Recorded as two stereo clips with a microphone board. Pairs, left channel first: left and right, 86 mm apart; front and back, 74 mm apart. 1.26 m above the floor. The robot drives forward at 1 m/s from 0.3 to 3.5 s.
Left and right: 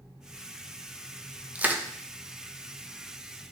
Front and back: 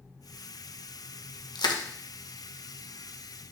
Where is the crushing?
20° right, 1.1 m; by 1.8 s 25° right, 0.9 m.